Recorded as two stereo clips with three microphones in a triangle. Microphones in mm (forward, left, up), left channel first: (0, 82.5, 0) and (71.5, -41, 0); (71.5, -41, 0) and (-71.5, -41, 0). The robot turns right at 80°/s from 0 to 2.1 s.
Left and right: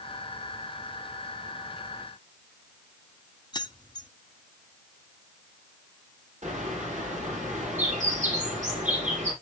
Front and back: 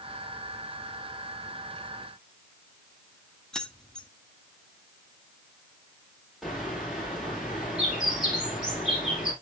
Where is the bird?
90° right, 5.5 m.